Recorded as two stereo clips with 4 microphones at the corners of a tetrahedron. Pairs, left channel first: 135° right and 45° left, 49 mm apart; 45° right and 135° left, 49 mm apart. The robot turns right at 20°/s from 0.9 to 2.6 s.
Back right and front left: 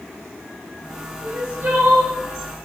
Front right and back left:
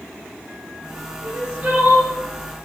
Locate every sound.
1.2 s crying: 70° left, 1.2 m; by 2.1 s 90° left, 1.2 m